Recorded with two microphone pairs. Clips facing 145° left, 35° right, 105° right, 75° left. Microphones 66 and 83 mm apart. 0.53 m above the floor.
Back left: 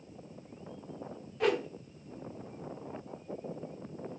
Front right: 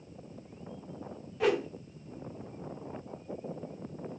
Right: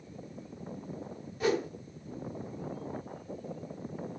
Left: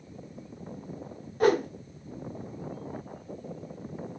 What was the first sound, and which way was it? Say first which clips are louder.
A whoosh: front right 1 dB, left 6 dB; 55° left.